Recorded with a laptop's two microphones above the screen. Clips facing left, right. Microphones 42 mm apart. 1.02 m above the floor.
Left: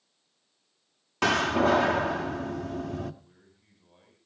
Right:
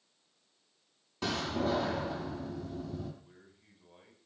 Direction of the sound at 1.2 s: 80° left.